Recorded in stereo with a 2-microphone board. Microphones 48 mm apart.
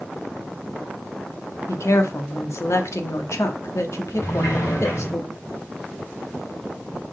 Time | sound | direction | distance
1.7 | a woman speaking | 75° left (ahead or behind) | 1.2 m
4.2 | a sliding door | 80° left | 3 m